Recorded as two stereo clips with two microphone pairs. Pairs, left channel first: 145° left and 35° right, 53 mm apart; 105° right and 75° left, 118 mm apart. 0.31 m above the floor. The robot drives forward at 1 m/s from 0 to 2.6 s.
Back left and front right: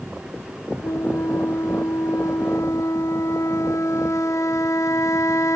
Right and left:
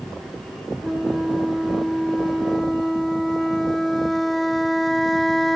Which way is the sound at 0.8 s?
160° left.